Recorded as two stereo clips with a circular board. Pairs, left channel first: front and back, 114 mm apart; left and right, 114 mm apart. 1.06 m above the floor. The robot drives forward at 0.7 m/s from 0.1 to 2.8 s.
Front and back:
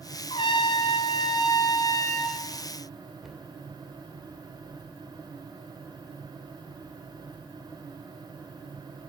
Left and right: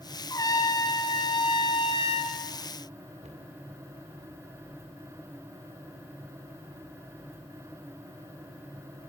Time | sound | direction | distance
0.3 | a trumpet | 35° left | 2.5 m
3.2 | a cupboard door | 90° right | 3 m